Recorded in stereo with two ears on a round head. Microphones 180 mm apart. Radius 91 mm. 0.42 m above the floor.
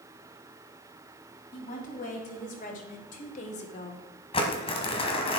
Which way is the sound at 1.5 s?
40° left (ahead or behind).